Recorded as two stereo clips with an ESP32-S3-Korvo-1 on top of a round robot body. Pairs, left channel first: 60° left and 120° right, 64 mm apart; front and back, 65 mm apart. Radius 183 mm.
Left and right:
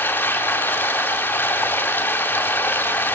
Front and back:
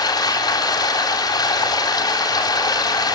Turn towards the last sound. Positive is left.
turn(degrees=0)